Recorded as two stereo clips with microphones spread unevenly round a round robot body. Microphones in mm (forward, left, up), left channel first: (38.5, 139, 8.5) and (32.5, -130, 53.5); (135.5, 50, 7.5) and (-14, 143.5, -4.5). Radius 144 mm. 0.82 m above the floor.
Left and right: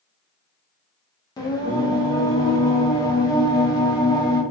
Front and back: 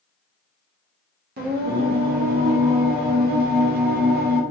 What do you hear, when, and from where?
1.4 s singing: 160° left, 0.7 m